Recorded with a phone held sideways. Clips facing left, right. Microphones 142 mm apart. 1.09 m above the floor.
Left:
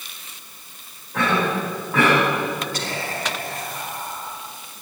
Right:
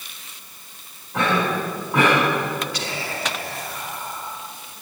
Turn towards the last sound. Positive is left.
turn(degrees=45)  # may be behind; listen again after turning